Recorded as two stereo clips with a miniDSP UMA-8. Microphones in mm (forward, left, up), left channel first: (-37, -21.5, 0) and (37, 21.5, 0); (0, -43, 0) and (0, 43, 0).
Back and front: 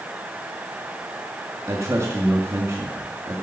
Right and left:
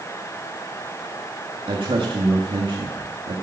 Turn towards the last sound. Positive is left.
turn(degrees=85)